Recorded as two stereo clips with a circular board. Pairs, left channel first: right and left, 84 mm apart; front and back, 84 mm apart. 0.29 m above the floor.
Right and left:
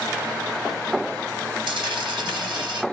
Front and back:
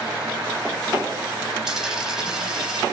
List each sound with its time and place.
1.7 s a dropped coin: 95° left, 0.8 m